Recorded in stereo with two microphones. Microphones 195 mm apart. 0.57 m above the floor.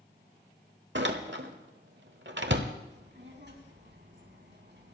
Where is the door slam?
65° right (ahead or behind), 1.2 m.